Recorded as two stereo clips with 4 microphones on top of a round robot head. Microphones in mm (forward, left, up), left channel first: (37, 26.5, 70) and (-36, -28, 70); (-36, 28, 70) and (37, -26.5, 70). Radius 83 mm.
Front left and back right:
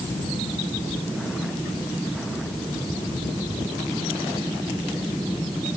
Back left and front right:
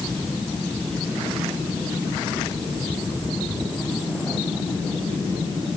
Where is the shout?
I don't hear a shout.